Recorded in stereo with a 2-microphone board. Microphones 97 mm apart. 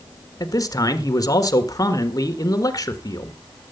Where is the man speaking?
35° left (ahead or behind), 1.5 m.